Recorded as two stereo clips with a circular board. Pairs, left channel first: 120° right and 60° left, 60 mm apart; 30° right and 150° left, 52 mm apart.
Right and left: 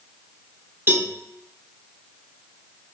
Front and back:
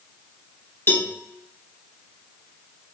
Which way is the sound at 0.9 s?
10° left.